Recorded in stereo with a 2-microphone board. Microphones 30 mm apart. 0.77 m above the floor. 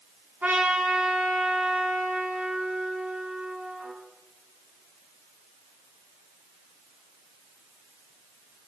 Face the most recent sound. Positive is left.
turn(degrees=-65)  # may be behind; listen again after turning